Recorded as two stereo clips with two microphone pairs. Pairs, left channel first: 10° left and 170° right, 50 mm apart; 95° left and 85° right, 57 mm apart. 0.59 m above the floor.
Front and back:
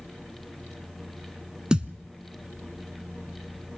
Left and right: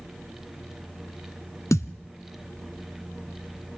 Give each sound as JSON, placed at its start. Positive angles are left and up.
{"t": 1.7, "sound": "a thud", "azimuth_deg": 115, "distance_m": 1.1}